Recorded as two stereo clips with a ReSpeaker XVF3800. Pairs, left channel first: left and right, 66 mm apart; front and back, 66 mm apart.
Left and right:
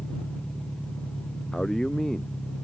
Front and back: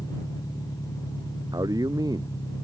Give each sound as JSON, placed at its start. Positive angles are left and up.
{"t": 0.0, "sound": "an engine running", "azimuth_deg": 15}
{"t": 1.5, "sound": "a man speaking", "azimuth_deg": 175}